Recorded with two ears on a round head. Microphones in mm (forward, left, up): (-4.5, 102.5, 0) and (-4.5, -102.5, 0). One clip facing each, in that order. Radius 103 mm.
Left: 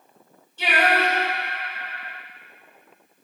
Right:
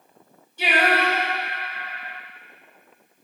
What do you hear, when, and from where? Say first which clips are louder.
0.6 s singing: even; 15° right (ahead or behind), 3.5 m